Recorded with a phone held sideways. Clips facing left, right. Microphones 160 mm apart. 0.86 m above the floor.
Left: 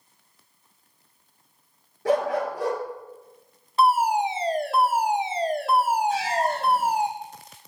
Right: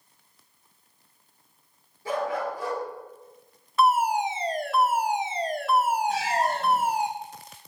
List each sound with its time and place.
2.0 s a dog barking: 70° left (ahead or behind), 4.5 m
3.8 s a fire alarm: 30° left (ahead or behind), 1.6 m
6.1 s a cat meowing: 60° right (ahead or behind), 7 m